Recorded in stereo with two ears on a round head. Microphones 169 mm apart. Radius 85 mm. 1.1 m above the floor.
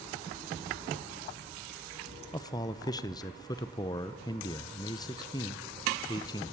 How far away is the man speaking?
About 0.7 m.